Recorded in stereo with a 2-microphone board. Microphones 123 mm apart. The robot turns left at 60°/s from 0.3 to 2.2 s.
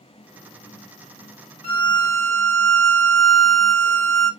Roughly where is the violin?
Ahead left.